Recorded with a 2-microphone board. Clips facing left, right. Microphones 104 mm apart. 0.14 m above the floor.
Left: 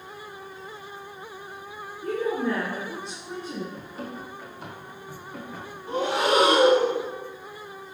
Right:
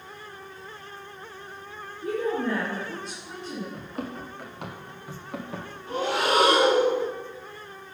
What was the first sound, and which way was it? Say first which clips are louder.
A woman speaking: left 1 dB; 15° right (ahead or behind).